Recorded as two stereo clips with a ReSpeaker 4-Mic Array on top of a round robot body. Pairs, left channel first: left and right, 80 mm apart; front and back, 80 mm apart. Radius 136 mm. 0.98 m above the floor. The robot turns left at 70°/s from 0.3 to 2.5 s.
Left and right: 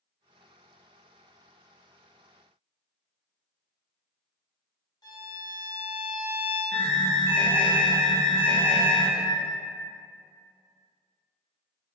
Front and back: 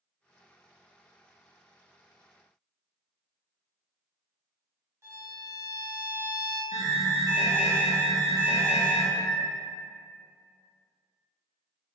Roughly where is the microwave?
Left.